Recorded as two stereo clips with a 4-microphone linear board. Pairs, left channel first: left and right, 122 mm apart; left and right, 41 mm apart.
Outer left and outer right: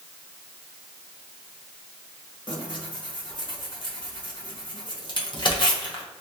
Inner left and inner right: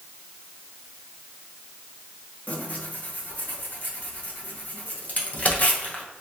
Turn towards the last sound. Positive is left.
turn(degrees=40)  # may be behind; listen again after turning